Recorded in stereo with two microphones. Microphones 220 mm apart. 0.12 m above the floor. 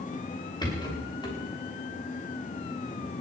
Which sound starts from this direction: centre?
A rattle, at 0.6 s.